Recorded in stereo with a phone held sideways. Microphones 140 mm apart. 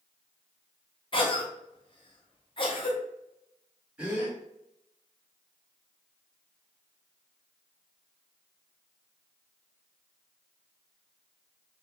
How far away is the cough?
About 1.0 m.